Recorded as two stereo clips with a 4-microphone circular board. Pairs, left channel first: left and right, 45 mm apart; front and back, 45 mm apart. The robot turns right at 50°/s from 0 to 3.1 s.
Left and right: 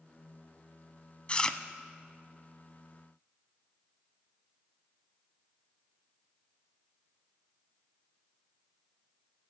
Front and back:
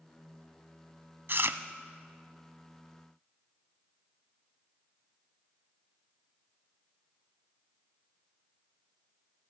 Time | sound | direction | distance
1.3 | chewing | 150° left | 0.6 m